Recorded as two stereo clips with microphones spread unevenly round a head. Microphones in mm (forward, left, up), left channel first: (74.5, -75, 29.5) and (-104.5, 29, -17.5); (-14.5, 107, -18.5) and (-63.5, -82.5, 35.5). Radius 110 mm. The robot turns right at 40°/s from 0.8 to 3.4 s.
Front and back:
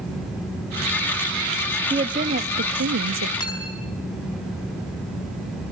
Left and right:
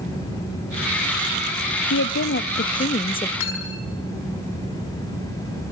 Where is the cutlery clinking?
40° left, 4.5 m.